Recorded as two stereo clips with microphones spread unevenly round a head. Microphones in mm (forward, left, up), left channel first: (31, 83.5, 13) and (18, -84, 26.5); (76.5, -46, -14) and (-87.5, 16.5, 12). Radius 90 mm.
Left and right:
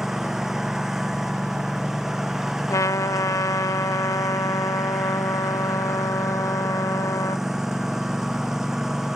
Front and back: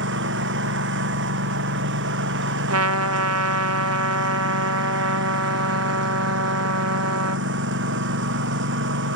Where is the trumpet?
160° left.